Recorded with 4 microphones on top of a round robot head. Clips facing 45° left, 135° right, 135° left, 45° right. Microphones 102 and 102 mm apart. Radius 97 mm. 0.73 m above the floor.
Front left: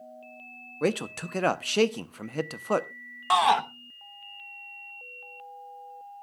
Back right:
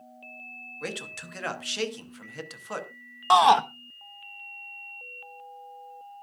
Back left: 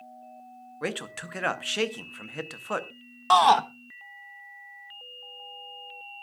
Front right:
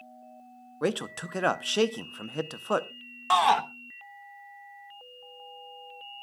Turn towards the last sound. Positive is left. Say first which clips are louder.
# back right 4 dB, back left 4 dB
turn(degrees=180)